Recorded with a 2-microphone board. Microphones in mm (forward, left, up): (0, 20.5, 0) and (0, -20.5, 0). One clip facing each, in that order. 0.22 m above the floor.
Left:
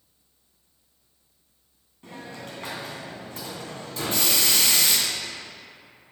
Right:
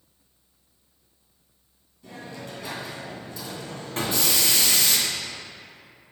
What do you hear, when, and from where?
2.0 s a hiss: 45° left (ahead or behind), 2.5 m
4.0 s a gunshot: 50° right (ahead or behind), 1.8 m